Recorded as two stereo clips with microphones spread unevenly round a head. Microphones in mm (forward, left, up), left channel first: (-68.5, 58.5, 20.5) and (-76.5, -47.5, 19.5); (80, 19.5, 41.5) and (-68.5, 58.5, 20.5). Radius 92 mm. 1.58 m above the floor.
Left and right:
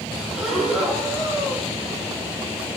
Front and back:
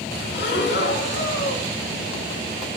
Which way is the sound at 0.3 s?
5° right.